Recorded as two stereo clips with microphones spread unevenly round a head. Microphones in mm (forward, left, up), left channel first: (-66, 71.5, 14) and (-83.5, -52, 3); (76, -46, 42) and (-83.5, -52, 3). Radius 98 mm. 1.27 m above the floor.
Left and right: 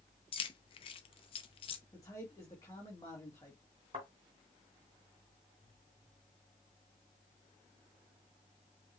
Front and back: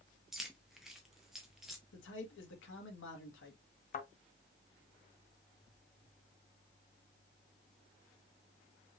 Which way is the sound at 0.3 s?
80° left.